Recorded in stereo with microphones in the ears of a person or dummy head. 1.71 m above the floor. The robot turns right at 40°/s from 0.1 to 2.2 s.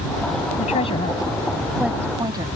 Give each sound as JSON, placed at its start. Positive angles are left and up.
{"t": 0.6, "sound": "a woman speaking", "side_deg": 45}